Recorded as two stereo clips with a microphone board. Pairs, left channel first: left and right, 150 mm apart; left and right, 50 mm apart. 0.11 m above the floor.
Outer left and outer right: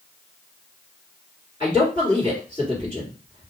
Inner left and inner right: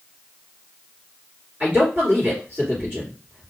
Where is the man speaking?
30° right (ahead or behind), 1.9 m.